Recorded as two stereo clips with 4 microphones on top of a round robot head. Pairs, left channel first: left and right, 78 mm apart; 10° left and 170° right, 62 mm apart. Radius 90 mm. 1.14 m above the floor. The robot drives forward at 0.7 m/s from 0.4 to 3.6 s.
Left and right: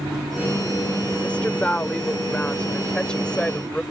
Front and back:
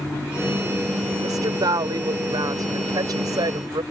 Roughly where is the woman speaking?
Behind.